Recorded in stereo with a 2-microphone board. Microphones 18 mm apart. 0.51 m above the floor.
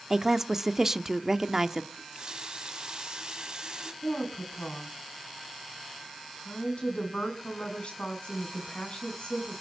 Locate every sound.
0.1 s a woman speaking: 25° right (ahead or behind), 0.9 m
1.9 s a running tap: 50° right (ahead or behind), 2.5 m
4.0 s a woman speaking: 65° left (ahead or behind), 5.5 m